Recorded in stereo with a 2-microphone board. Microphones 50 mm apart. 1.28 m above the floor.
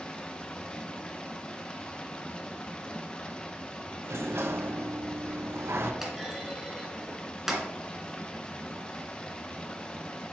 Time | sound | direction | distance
0.0 | running water | 20° left (ahead or behind) | 1.1 m
4.0 | a sliding door | 55° right (ahead or behind) | 1.1 m
6.0 | a clunk | 5° right (ahead or behind) | 2.5 m